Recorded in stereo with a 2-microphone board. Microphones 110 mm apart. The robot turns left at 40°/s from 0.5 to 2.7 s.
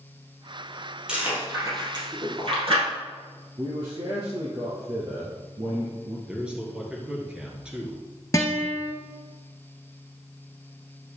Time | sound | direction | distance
1.1 | chewing | 10° right (ahead or behind) | 4 m
3.6 | a man speaking | 50° right (ahead or behind) | 2.0 m
6.3 | a man speaking | 10° right (ahead or behind) | 2.5 m
8.3 | a guitar | 30° left (ahead or behind) | 1.4 m